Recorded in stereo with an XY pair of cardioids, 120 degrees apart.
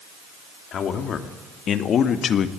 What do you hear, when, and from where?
0.7 s a man speaking: 50° left, 2.5 m